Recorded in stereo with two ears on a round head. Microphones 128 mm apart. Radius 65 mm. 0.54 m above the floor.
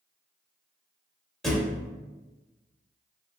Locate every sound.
1.4 s a thud: 5° left (ahead or behind), 0.6 m